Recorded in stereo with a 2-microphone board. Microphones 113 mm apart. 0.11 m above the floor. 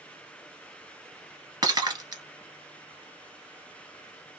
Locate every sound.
1.6 s breaking glass: 35° right (ahead or behind), 1.1 m